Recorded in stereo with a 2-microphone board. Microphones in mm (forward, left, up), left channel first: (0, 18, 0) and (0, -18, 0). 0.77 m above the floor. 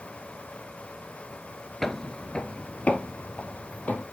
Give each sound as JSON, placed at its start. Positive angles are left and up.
{"t": 1.8, "sound": "footsteps", "side_deg": 10, "distance_m": 0.7}